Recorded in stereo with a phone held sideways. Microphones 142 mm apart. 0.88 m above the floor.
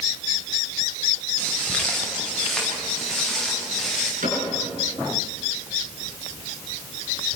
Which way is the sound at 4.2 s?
80° right.